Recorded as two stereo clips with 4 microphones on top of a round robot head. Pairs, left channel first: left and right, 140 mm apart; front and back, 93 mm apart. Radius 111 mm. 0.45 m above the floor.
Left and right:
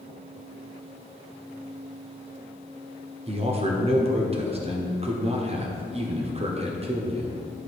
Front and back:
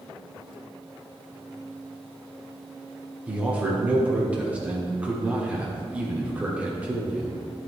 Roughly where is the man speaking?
Right.